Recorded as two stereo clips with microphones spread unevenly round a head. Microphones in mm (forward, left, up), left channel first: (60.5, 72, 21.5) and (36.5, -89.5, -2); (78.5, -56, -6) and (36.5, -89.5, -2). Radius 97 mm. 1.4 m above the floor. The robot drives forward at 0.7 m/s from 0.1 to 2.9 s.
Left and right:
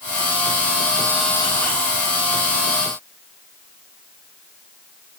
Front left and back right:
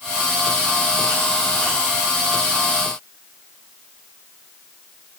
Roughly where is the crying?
No crying in this recording.